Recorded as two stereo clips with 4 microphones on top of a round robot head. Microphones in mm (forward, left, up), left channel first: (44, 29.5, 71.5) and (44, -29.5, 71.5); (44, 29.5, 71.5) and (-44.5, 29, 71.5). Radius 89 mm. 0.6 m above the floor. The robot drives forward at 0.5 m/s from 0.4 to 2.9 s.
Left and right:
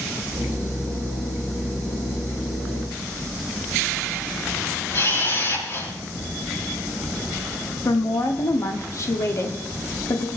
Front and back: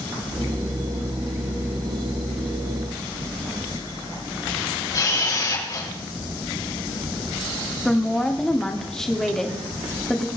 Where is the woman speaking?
85° left, 2 m.